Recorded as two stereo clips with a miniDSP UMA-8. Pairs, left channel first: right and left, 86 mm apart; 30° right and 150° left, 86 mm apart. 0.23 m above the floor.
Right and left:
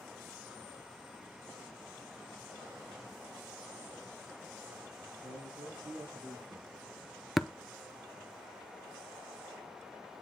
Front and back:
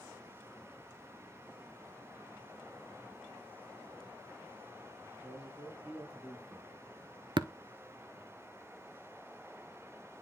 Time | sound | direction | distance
5.1 | a man speaking | 75° left | 5 m
7.4 | tapping | straight behind | 0.5 m